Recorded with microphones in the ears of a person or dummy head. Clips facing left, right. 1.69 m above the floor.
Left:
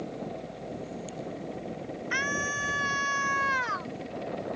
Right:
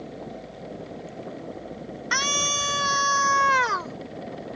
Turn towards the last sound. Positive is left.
turn(degrees=-65)  # may be behind; listen again after turning